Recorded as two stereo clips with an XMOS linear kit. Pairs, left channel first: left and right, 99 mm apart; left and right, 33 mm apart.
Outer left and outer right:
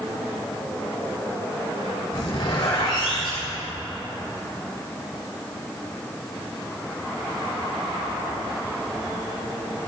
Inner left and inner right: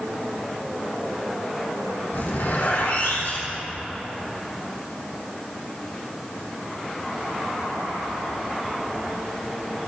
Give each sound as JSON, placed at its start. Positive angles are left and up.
{"t": 2.1, "sound": "a zipper", "side_deg": 70, "distance_m": 3.5}